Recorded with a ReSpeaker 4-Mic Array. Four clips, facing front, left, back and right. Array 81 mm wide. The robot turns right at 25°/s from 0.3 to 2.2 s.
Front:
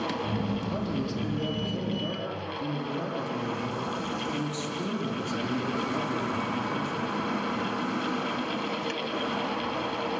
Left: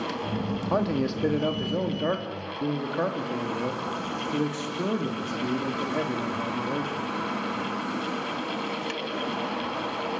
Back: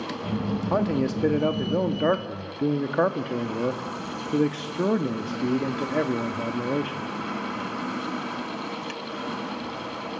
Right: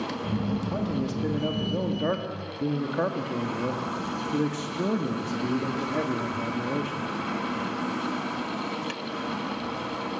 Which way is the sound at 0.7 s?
145° left.